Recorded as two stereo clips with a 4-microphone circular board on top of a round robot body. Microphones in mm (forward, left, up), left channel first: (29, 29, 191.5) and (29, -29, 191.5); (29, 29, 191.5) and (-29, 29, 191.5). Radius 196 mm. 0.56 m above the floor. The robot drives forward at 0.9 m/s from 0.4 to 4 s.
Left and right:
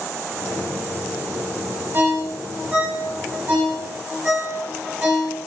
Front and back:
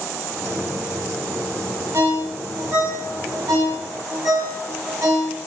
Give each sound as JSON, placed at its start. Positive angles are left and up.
{"t": 1.9, "sound": "a ringtone", "azimuth_deg": -140, "distance_m": 3.0}